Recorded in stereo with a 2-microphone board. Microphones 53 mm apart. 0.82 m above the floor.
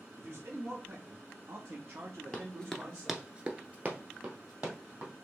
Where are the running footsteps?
20° left (ahead or behind), 1.1 m; by 5.1 s 30° right (ahead or behind), 2.5 m.